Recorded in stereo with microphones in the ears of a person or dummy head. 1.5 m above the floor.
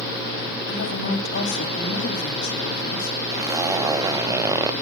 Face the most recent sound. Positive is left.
turn(degrees=-15)  # may be behind; listen again after turning